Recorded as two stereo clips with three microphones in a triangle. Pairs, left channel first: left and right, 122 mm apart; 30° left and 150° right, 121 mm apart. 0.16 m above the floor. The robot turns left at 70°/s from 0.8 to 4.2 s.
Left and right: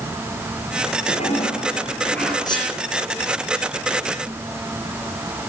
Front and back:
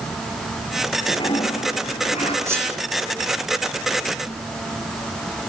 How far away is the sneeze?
About 9.5 m.